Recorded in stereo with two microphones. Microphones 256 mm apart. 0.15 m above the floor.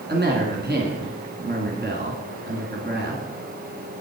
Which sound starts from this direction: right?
A woman speaking, at 0.1 s.